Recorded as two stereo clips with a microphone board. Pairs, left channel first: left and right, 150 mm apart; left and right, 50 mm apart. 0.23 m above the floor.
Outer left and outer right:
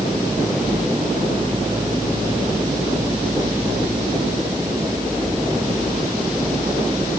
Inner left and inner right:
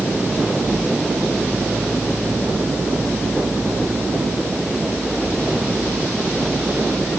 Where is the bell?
No bell in this recording.